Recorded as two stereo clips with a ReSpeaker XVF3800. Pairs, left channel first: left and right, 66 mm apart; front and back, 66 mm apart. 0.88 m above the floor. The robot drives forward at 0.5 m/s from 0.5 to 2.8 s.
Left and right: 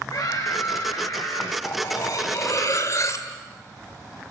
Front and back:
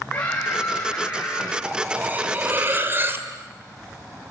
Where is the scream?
70° left, 4 m; by 1.5 s 80° left, 4 m.